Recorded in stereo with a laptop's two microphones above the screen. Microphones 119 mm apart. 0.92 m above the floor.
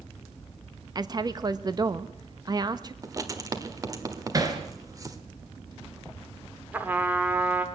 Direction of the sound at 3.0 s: 30° right (ahead or behind).